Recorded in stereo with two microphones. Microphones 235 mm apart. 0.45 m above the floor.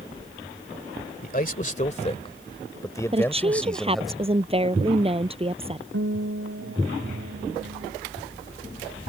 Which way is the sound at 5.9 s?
65° right (ahead or behind).